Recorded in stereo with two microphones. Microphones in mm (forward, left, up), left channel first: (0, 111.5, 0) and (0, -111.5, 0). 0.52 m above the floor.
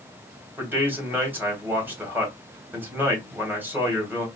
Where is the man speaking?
10° right (ahead or behind), 2.5 m.